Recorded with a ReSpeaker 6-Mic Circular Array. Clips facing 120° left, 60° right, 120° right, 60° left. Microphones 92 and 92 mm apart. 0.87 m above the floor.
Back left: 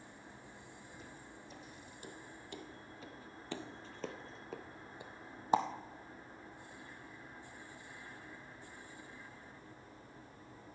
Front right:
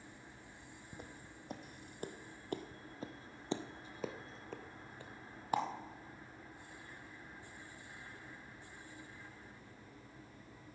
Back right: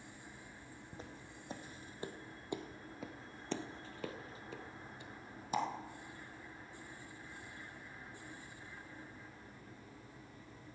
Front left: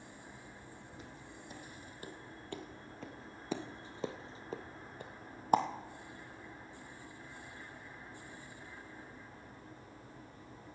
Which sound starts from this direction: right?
Footsteps, at 0.9 s.